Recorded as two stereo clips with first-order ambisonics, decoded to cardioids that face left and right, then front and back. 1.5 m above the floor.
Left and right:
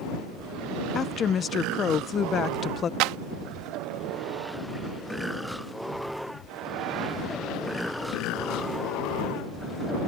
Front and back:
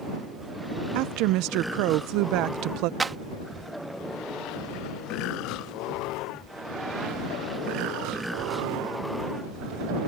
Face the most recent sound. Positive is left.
turn(degrees=-105)